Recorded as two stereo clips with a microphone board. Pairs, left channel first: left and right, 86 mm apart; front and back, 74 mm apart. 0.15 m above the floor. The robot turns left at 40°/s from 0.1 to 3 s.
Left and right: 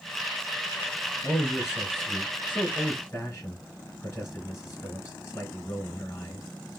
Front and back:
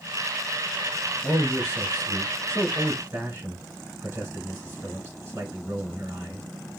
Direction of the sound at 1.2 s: 160° right.